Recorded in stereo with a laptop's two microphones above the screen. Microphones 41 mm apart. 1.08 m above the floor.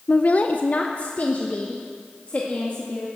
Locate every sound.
0.1 s a woman speaking: 35° left (ahead or behind), 0.6 m